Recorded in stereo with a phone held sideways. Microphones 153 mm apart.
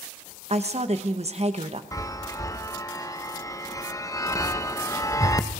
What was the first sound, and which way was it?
A woman speaking, 45° right (ahead or behind).